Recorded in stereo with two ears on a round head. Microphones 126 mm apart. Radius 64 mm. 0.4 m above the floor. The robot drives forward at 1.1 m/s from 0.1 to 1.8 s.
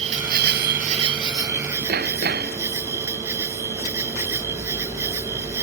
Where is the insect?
50° right (ahead or behind); by 5.6 s 20° right (ahead or behind).